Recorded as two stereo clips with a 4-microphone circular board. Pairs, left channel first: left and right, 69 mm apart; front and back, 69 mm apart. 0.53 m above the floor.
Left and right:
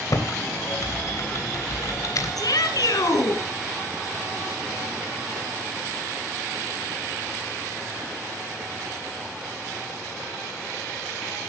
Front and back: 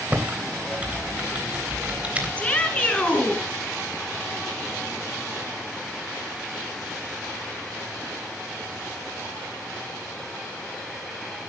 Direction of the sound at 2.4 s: 70° left.